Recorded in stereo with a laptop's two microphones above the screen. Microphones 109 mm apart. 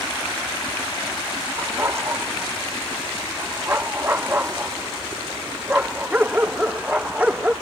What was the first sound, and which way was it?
A dog barking, 25° right (ahead or behind).